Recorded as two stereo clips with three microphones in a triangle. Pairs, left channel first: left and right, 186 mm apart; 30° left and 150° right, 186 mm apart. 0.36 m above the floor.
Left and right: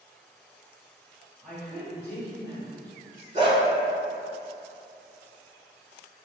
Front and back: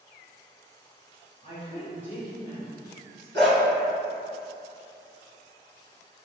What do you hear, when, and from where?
1.4 s a woman speaking: 5° left, 1.3 m; by 3.2 s 105° left, 1.1 m
3.3 s a dog barking: 145° right, 1.7 m